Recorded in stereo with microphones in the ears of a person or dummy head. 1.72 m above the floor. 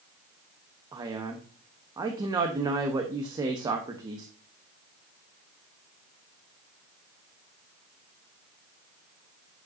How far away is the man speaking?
About 0.9 m.